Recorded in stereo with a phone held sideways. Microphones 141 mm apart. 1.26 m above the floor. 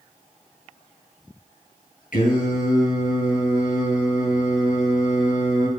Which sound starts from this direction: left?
Singing, at 2.1 s.